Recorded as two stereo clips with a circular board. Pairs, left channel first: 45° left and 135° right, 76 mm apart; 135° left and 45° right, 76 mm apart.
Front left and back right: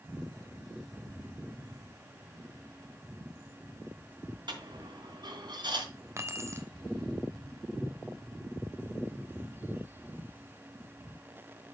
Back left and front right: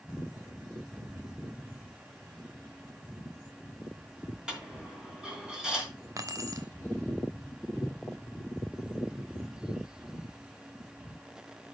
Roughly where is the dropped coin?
Behind right.